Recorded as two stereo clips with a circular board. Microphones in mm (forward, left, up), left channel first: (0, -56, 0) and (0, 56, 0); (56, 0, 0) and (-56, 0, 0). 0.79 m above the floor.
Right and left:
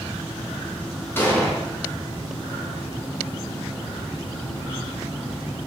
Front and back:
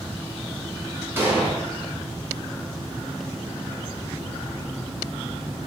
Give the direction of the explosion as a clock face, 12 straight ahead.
5 o'clock.